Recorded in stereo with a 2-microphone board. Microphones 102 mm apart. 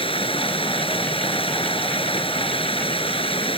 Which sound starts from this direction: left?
Running water, at 0.0 s.